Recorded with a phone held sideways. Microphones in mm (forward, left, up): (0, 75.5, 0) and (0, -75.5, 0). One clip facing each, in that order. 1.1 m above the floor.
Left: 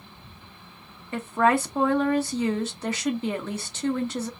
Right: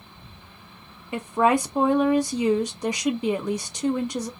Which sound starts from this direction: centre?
A woman speaking, at 1.1 s.